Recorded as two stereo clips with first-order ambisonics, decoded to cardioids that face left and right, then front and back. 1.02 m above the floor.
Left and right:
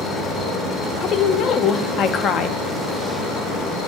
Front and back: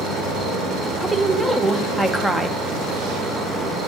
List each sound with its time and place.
0.0 s an insect: 135° left, 1.9 m
1.0 s a woman speaking: 95° left, 0.5 m